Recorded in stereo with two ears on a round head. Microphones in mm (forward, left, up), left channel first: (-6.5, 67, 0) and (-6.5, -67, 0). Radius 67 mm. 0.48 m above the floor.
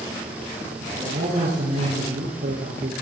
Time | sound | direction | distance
0.8 | a man speaking | 60° right (ahead or behind) | 9 m